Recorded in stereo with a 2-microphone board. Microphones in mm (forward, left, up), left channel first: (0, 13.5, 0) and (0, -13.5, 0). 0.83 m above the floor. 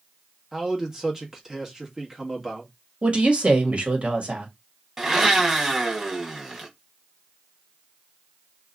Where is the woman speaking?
45° right (ahead or behind), 1.4 m.